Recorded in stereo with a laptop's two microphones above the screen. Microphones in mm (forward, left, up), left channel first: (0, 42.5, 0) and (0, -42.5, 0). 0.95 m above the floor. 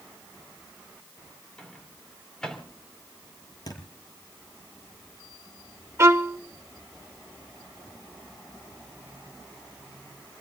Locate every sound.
1.6 s a microwave: 10° left (ahead or behind), 3 m
3.7 s a thud: 45° left (ahead or behind), 5.5 m
6.0 s a violin: 35° right (ahead or behind), 0.8 m